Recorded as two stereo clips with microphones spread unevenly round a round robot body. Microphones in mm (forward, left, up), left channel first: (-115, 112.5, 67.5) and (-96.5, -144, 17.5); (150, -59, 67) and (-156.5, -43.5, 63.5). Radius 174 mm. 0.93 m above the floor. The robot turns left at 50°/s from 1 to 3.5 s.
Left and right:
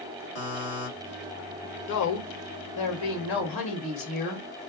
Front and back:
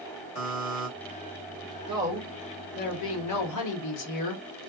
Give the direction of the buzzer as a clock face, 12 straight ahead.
10 o'clock.